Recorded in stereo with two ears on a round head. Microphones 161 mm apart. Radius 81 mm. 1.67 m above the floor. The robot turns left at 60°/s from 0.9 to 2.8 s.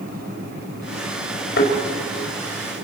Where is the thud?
70° left (ahead or behind), 4.5 m; by 1.7 s 60° left (ahead or behind), 4.5 m.